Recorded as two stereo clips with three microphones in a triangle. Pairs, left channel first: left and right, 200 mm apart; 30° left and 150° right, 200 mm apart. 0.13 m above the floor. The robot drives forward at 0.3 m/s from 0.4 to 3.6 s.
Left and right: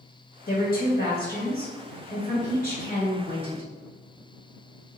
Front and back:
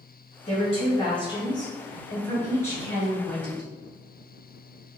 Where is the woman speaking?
75° left, 1.7 m; by 3.7 s 115° left, 1.8 m.